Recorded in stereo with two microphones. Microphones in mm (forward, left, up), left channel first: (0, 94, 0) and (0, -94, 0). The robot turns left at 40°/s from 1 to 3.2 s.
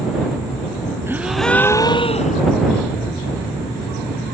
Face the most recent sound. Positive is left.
turn(degrees=105)